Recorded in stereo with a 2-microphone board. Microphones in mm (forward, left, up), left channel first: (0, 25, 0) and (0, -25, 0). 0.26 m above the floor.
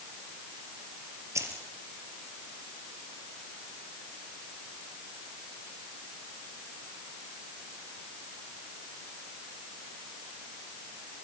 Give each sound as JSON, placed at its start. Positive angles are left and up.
{"t": 1.4, "sound": "keys jangling", "side_deg": -80, "distance_m": 4.5}